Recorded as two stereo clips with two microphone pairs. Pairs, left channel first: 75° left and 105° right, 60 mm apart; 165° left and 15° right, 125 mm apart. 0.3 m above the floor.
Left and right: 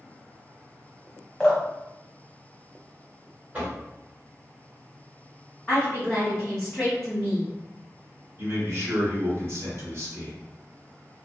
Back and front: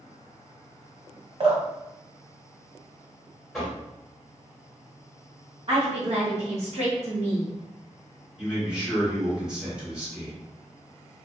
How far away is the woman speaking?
About 1.7 m.